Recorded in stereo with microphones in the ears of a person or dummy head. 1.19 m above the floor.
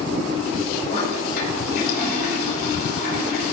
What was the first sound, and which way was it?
A toilet flushing, 55° left (ahead or behind).